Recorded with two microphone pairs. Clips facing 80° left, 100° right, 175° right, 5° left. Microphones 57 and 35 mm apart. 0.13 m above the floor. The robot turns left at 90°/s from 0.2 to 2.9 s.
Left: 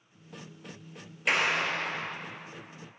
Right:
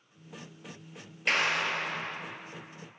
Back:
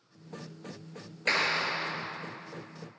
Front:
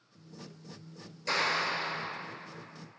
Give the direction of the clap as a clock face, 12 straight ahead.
7 o'clock.